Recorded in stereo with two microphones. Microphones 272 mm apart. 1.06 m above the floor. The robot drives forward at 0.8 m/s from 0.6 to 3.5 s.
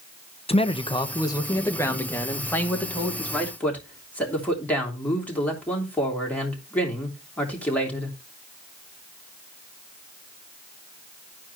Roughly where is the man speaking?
Left.